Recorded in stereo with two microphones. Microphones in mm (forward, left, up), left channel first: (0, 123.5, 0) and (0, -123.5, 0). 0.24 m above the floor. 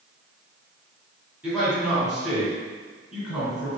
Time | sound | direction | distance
1.4 | a man speaking | 5° right (ahead or behind) | 1.9 m